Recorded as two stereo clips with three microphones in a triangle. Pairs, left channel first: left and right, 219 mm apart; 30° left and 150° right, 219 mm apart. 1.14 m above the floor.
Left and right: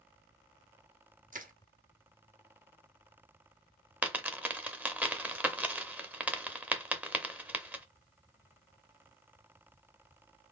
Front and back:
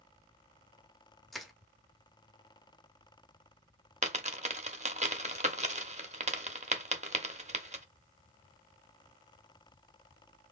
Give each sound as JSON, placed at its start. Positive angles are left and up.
{"t": 1.3, "sound": "crushing", "azimuth_deg": -60, "distance_m": 0.8}
{"t": 4.0, "sound": "a dropped coin", "azimuth_deg": -165, "distance_m": 0.7}